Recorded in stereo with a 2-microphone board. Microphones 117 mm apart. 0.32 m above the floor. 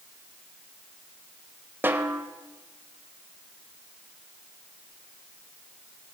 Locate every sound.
1.8 s a snare drum: 15° right (ahead or behind), 0.9 m